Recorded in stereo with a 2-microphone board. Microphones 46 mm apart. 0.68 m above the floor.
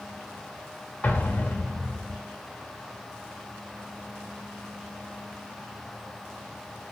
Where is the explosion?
35° left (ahead or behind), 0.9 m.